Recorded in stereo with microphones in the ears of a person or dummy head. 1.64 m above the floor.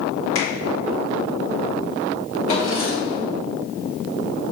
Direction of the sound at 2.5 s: 30° left (ahead or behind).